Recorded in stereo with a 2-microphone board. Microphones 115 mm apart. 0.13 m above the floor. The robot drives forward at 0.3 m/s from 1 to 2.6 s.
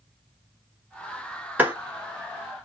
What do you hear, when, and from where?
1.6 s a clap: 15° right (ahead or behind), 1.5 m